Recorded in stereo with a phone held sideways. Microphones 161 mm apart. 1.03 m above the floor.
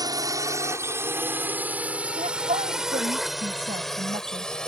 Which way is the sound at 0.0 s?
25° right (ahead or behind).